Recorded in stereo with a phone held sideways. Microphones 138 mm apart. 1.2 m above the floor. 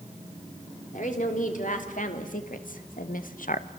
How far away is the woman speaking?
About 3.5 m.